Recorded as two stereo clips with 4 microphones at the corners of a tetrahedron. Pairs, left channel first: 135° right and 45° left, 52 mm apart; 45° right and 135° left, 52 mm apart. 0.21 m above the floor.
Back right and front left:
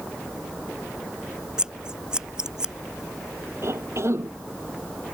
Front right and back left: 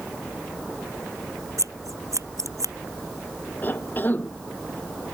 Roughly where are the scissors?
Behind left.